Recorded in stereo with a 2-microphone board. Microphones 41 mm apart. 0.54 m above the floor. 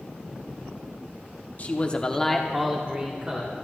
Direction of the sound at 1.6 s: 40° left (ahead or behind).